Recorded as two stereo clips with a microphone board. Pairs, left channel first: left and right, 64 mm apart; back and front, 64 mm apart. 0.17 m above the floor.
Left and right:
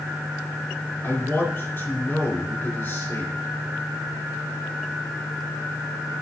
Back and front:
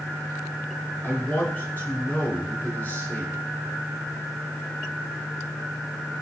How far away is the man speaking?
About 2.5 m.